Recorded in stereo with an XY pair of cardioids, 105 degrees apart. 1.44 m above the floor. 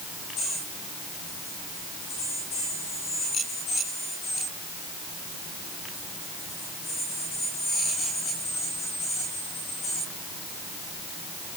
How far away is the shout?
No shout in this recording.